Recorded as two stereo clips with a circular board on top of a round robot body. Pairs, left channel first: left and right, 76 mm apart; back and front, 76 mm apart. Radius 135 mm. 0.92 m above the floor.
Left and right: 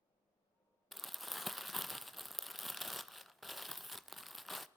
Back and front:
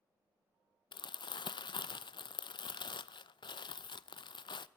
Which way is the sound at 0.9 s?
Straight behind.